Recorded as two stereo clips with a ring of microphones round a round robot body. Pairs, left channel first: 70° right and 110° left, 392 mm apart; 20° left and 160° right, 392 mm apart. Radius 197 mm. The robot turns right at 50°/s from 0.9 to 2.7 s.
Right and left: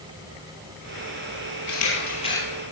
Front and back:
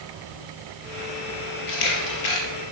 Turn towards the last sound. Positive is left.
turn(degrees=30)